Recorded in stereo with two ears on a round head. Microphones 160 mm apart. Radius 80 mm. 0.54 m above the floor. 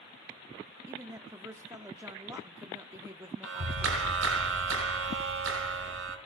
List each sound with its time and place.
0.9 s a woman speaking: 15° right (ahead or behind), 0.9 m
3.4 s a clap: 85° right, 4 m